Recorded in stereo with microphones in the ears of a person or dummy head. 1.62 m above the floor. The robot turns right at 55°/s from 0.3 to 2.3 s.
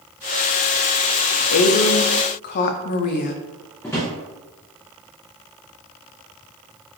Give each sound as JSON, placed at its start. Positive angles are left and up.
{"t": 1.5, "sound": "a woman speaking", "azimuth_deg": 85, "distance_m": 0.5}
{"t": 3.8, "sound": "a drawer", "side_deg": 10, "distance_m": 0.8}